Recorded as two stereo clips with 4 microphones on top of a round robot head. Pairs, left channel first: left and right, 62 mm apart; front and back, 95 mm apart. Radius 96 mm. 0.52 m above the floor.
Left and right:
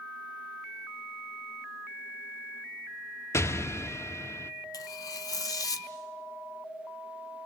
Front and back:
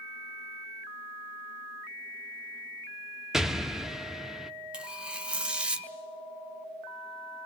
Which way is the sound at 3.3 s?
95° left.